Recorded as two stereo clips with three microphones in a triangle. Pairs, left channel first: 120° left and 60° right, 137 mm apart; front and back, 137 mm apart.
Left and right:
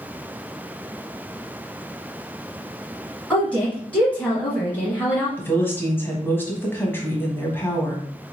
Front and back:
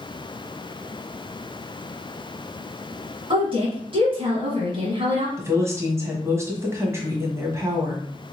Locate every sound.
3.3 s a woman speaking: 165° right, 1.5 m
5.4 s a woman speaking: 160° left, 1.1 m